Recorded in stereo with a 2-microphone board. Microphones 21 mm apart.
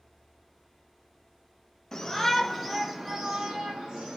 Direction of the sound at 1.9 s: 20° left (ahead or behind).